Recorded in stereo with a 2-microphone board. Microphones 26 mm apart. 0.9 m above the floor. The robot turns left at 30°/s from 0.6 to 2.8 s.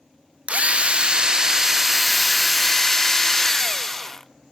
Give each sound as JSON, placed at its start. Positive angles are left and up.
{"t": 0.5, "sound": "a drill", "azimuth_deg": -125, "distance_m": 0.6}